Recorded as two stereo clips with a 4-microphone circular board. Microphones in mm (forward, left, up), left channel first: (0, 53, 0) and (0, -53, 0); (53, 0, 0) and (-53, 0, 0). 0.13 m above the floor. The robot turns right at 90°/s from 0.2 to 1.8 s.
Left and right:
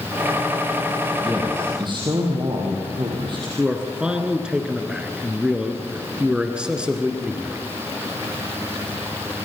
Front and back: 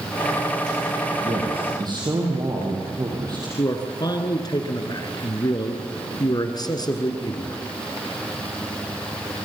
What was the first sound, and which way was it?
A man speaking, 175° left.